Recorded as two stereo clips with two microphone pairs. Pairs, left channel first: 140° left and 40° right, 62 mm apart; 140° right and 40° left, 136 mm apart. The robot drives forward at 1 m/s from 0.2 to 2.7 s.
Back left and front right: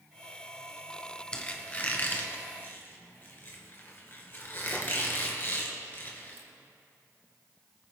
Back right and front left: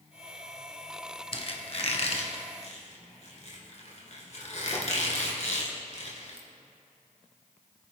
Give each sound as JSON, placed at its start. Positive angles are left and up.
{"t": 1.3, "sound": "a squeak", "azimuth_deg": -155, "distance_m": 1.2}